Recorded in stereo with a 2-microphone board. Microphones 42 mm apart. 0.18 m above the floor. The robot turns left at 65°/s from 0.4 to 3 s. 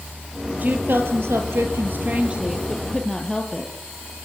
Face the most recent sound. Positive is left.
turn(degrees=165)